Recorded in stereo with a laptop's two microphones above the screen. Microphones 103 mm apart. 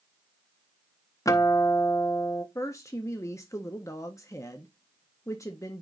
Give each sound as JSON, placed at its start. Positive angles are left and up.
{"t": 1.2, "sound": "a guitar", "side_deg": 30, "distance_m": 0.5}
{"t": 2.5, "sound": "a woman speaking", "side_deg": 30, "distance_m": 0.9}